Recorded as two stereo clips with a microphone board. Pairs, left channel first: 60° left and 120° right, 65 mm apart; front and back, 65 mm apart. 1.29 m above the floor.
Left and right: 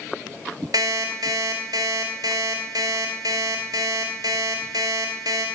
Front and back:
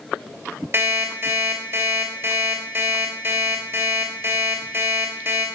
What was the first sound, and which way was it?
An alarm clock, 130° right.